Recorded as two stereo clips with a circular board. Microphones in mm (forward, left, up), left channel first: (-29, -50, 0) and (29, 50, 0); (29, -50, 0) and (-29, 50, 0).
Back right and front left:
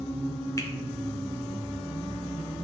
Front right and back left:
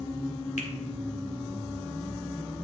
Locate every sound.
0.6 s a finger snap: 60° right, 1.3 m